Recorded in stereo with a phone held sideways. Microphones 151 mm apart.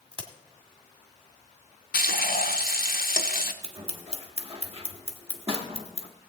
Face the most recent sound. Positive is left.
turn(degrees=-40)  # may be behind; listen again after turning